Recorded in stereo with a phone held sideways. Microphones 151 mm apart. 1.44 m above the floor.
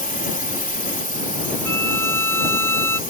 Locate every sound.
0.0 s a drone: 65° left (ahead or behind)
1.6 s a violin: 15° left (ahead or behind)